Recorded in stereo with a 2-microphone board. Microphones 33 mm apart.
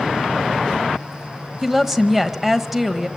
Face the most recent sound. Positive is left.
turn(degrees=-10)  # may be behind; listen again after turning